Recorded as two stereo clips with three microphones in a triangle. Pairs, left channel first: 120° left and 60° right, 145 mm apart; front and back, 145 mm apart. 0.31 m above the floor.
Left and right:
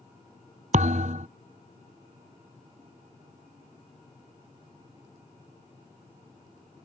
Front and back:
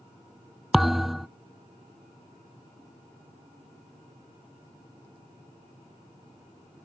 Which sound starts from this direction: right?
A thud, at 0.7 s.